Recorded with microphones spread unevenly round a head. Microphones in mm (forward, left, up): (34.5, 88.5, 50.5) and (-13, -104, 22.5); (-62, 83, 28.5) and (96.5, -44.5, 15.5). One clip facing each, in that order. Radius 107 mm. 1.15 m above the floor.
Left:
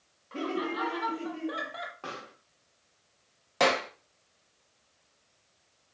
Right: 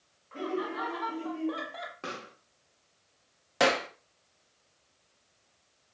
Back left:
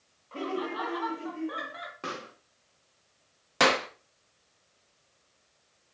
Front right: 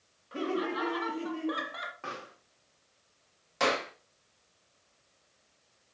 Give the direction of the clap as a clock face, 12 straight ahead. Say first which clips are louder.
Even, back left 4 dB; 6 o'clock.